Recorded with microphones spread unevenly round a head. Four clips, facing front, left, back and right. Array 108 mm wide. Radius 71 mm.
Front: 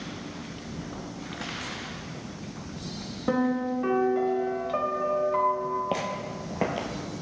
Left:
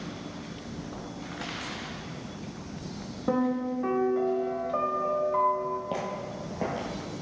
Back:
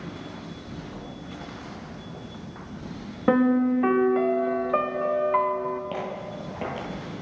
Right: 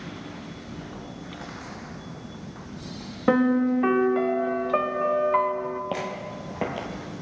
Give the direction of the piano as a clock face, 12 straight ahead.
3 o'clock.